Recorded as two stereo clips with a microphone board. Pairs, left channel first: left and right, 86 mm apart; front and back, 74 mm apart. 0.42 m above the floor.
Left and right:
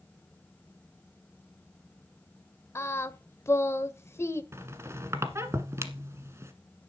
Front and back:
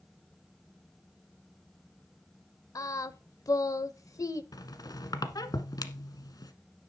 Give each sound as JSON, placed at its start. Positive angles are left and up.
{"t": 2.8, "sound": "singing", "azimuth_deg": 35, "distance_m": 0.7}
{"t": 4.5, "sound": "a squeak", "azimuth_deg": -35, "distance_m": 1.3}